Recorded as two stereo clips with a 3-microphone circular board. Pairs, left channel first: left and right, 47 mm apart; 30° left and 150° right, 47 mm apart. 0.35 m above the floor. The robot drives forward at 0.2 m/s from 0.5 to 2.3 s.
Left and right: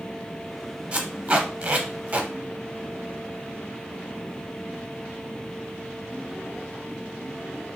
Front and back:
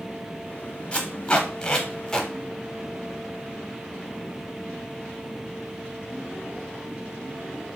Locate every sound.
0.9 s tape being pulled: 35° right, 0.8 m; by 2.3 s 50° right, 0.6 m